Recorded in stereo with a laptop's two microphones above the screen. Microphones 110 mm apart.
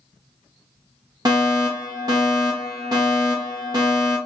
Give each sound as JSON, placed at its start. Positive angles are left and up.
{"t": 1.2, "sound": "a fire alarm", "side_deg": -35, "distance_m": 1.4}